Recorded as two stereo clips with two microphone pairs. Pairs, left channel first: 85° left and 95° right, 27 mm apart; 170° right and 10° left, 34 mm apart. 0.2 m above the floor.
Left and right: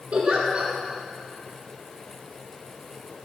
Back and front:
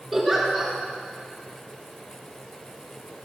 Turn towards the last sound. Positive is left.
turn(degrees=-80)